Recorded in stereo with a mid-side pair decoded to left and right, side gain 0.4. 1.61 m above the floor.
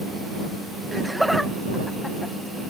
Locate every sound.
0.9 s laughter: 10° right; by 2.3 s 20° left